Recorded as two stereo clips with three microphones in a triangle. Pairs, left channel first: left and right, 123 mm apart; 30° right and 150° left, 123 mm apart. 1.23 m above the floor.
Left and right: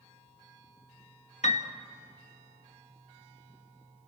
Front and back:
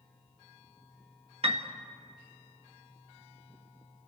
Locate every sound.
1.4 s a piano: 115° left, 1.6 m